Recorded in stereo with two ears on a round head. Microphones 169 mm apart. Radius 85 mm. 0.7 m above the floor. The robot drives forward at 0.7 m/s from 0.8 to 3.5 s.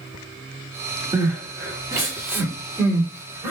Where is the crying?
25° right (ahead or behind), 1.3 m; by 3.5 s 10° right (ahead or behind), 2.5 m.